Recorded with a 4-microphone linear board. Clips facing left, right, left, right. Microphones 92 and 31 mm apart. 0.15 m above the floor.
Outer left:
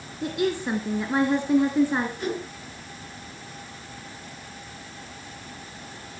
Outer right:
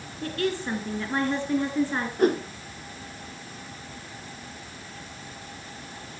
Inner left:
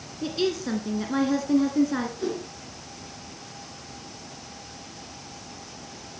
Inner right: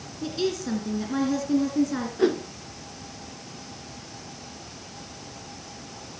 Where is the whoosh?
50° right (ahead or behind), 1.4 m.